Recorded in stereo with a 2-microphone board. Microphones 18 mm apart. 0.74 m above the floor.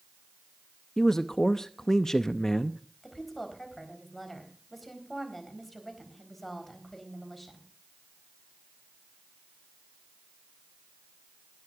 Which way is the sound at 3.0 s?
15° left (ahead or behind).